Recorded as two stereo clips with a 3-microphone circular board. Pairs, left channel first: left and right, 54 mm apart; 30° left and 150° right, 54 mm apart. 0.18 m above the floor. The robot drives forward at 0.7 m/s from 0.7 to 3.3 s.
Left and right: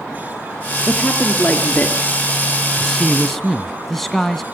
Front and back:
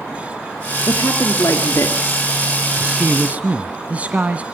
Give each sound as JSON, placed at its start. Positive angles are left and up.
{"t": 0.9, "sound": "a woman speaking", "azimuth_deg": 25, "distance_m": 3.5}
{"t": 2.8, "sound": "a man speaking", "azimuth_deg": 170, "distance_m": 1.4}